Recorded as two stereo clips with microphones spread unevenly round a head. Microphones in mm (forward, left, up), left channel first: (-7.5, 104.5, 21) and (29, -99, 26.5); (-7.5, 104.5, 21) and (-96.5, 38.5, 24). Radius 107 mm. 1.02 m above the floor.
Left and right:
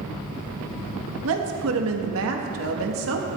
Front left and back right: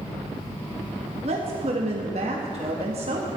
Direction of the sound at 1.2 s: 100° right.